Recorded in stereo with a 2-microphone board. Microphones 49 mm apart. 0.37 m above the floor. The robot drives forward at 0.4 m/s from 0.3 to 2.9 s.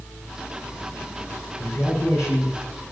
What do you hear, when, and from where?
1.6 s a man speaking: 80° left, 6 m